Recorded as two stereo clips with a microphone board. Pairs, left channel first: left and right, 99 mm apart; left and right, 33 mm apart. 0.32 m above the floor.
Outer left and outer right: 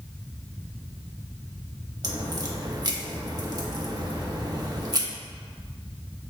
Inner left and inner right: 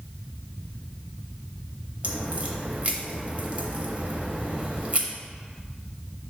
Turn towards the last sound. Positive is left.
turn(degrees=-45)  # may be behind; listen again after turning